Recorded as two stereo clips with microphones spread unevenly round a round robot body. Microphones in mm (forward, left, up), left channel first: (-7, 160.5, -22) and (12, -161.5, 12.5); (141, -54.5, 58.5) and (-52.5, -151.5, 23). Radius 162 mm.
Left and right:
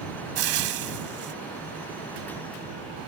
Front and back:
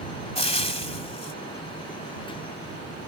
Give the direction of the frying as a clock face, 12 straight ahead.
1 o'clock.